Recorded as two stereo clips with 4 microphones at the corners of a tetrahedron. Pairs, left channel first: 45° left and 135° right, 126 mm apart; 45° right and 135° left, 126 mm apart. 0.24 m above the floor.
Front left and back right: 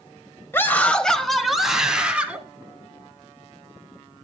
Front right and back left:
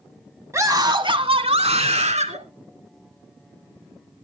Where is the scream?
95° left, 1.2 m; by 2.4 s 145° left, 2.5 m.